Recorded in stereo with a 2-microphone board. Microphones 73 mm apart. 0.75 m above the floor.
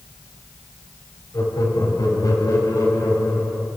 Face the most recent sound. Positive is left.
turn(degrees=60)  # may be behind; listen again after turning